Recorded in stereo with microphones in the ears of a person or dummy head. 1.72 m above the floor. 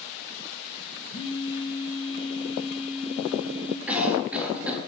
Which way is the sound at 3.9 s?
5° right (ahead or behind).